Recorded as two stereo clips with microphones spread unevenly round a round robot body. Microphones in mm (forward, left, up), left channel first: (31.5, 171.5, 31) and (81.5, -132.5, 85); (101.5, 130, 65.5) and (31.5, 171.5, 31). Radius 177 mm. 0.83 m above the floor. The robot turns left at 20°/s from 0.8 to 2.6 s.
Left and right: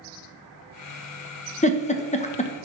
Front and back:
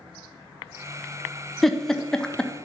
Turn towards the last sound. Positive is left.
turn(degrees=80)